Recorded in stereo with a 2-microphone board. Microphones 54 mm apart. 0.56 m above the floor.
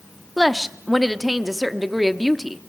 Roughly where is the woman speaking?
Centre.